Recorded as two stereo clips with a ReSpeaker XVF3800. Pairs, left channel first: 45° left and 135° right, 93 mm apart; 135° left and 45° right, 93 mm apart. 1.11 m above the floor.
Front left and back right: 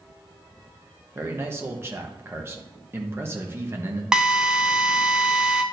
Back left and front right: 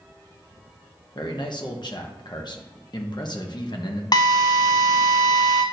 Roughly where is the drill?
Behind left.